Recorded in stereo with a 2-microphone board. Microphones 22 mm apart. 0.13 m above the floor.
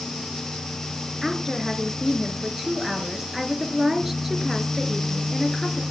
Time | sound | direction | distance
1.2 | a woman speaking | 15° right (ahead or behind) | 2.5 m